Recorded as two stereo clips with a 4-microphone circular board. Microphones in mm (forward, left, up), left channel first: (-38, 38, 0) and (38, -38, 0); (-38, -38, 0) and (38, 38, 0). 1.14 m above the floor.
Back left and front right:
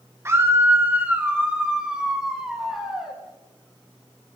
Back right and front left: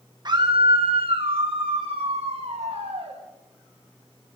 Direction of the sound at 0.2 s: 15° left.